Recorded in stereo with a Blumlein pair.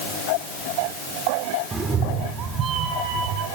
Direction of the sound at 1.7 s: 15° right.